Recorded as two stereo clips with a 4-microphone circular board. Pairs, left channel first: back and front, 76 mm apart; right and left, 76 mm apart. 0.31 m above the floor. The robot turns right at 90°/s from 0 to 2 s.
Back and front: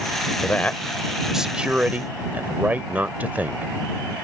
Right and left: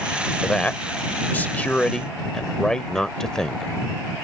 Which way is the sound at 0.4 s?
160° right.